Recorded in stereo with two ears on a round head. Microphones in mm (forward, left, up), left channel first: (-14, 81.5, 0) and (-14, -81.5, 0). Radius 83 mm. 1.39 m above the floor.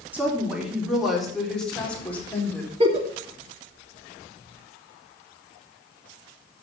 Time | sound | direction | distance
0.1 | a woman speaking | 10° right (ahead or behind) | 3.5 m
2.8 | a giggle | 35° right (ahead or behind) | 2 m